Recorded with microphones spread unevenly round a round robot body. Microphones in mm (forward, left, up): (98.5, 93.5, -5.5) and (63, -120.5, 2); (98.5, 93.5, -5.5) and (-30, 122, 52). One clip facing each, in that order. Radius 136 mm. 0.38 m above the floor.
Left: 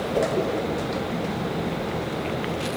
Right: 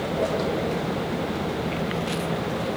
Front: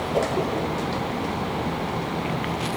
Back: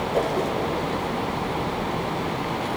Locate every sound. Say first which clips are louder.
0.1 s a whoosh: left 3 dB, even; 70° left, 9 m